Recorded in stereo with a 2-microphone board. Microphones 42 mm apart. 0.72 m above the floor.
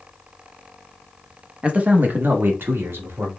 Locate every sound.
1.6 s a man speaking: 25° right (ahead or behind), 0.8 m; by 3.3 s 70° right (ahead or behind), 1.4 m